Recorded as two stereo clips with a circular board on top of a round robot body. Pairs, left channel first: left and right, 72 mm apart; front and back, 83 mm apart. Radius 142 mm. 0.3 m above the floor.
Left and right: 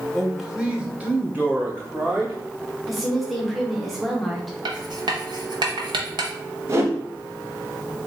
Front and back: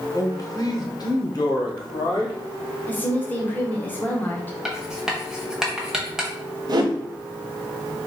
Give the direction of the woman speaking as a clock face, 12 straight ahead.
12 o'clock.